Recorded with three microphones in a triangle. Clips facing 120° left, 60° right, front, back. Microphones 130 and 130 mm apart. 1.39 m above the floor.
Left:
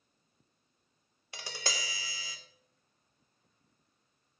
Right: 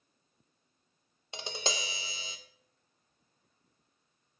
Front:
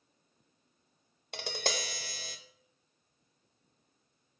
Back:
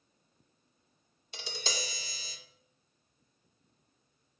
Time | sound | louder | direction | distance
1.3 | tapping | right 4 dB, front 4 dB | 5° left | 0.6 m